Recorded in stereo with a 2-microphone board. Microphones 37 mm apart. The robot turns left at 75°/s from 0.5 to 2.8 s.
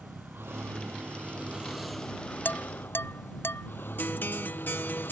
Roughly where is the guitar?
Left.